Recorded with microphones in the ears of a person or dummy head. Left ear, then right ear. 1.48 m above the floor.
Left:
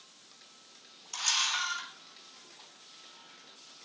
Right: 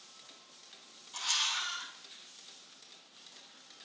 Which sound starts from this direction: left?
A camera shutter, at 1.1 s.